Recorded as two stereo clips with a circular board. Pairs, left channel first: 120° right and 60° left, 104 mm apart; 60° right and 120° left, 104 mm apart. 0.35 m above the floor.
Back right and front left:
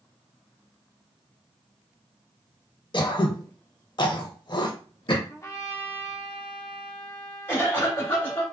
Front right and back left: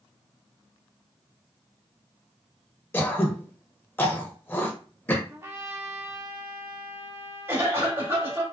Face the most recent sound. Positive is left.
turn(degrees=180)